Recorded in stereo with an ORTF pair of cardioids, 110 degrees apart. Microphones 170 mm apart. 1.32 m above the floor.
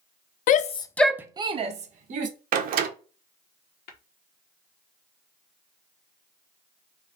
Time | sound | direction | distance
0.5 | a shout | 55° left | 0.6 m
2.5 | a door slam | 55° right | 0.8 m
3.9 | tapping | 65° left | 1.1 m